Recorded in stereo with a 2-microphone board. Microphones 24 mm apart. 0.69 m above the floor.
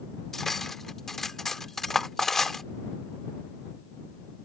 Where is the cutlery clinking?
15° left (ahead or behind).